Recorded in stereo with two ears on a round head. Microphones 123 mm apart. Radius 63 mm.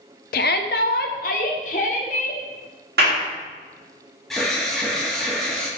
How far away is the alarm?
About 1.3 m.